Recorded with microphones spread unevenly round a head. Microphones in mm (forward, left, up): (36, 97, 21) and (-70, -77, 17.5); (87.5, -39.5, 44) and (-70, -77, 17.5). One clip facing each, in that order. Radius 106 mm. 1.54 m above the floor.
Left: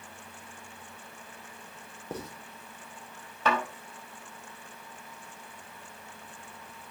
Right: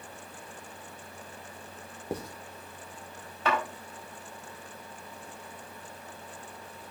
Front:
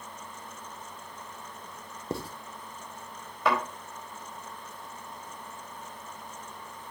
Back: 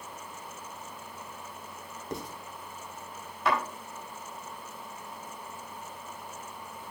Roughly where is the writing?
Ahead right.